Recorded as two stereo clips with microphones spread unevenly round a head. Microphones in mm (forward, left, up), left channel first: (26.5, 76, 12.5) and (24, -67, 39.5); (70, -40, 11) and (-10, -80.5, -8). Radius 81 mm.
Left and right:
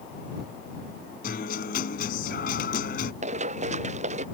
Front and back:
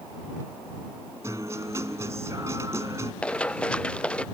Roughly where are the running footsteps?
Ahead right.